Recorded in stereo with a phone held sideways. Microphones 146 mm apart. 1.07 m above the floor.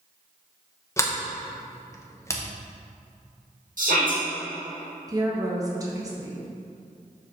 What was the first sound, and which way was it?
A sliding door, 20° left (ahead or behind).